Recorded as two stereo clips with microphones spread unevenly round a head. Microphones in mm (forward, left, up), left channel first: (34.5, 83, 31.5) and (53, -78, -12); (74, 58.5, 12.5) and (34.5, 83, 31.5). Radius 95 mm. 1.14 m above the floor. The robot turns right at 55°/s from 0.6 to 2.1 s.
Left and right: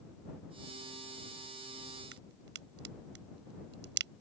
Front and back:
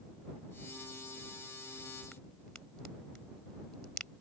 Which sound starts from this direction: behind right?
A crack, at 2.1 s.